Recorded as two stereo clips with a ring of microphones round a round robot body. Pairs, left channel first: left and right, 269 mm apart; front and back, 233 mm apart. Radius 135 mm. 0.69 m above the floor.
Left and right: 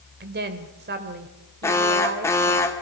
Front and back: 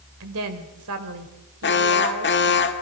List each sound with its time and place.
0.2 s a woman speaking: 145° right, 2.5 m
1.6 s an alarm: 10° left, 1.6 m